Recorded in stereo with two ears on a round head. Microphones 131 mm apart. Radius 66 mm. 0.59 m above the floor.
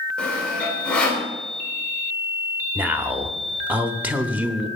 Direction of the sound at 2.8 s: 10° right (ahead or behind).